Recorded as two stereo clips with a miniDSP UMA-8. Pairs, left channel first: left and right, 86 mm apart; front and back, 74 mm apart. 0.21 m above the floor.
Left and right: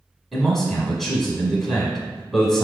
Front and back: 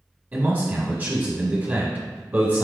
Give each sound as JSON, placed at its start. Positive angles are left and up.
{"t": 0.3, "sound": "a man speaking", "azimuth_deg": 175, "distance_m": 1.0}